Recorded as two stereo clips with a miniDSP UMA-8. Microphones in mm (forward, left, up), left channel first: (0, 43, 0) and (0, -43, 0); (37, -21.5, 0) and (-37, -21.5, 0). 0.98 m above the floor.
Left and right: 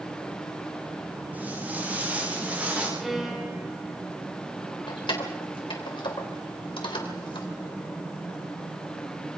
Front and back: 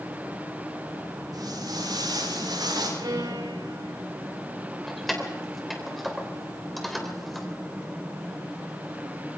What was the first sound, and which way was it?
Footsteps, 160° right.